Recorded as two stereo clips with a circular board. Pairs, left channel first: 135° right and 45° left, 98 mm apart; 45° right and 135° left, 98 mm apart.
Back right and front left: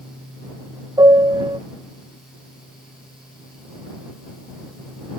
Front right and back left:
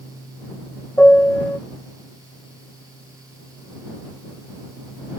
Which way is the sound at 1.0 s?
25° left.